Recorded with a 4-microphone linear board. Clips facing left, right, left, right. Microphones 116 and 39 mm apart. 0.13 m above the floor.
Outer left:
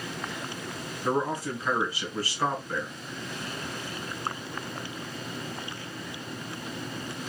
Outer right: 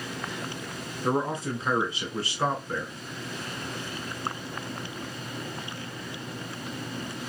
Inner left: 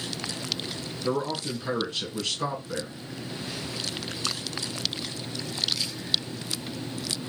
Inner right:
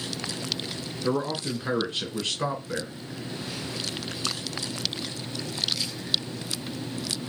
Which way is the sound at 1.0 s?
25° right (ahead or behind).